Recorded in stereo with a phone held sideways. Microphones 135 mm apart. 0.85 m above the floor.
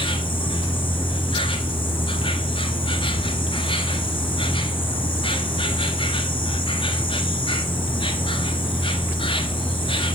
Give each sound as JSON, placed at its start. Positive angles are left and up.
{"t": 0.0, "sound": "an insect", "side_deg": 40, "distance_m": 1.5}